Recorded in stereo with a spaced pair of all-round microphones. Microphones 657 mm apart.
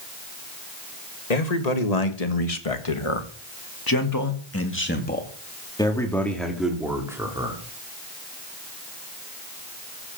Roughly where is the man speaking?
Left.